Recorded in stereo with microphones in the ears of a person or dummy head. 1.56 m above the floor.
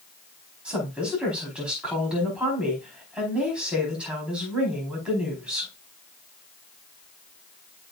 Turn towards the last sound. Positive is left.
turn(degrees=-5)  # may be behind; listen again after turning